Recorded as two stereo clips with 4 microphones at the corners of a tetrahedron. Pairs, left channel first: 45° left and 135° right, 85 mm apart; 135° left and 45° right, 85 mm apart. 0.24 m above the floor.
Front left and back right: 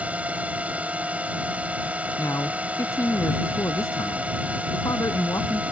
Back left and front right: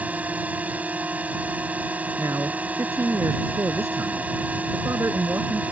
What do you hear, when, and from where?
0.0 s a drone: 90° right
2.2 s a man speaking: 5° left